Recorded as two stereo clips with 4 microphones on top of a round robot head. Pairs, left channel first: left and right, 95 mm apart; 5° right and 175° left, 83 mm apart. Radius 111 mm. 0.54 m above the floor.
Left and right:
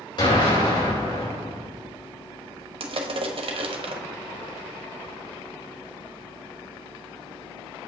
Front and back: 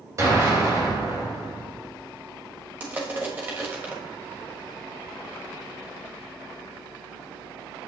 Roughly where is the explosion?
Behind left.